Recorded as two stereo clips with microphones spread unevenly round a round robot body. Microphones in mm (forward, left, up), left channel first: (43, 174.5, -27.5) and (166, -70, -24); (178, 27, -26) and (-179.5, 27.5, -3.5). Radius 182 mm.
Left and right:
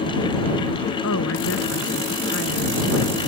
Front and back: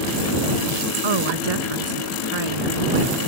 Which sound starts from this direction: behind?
A woman speaking, at 1.0 s.